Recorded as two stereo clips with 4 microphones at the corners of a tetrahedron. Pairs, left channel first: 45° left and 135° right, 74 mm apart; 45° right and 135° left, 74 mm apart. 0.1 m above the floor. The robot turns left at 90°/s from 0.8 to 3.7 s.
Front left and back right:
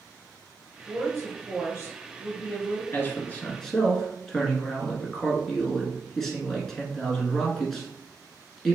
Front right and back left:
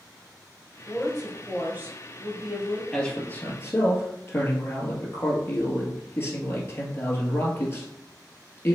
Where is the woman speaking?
100° right, 2.0 m; by 2.8 s 85° left, 2.0 m.